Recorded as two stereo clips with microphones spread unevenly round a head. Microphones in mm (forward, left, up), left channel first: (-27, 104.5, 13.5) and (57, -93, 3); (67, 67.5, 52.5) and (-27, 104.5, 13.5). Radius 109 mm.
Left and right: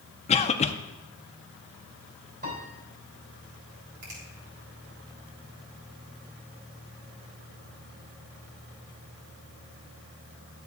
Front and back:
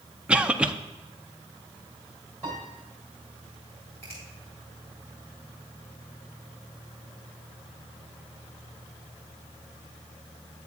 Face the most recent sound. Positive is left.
turn(degrees=-100)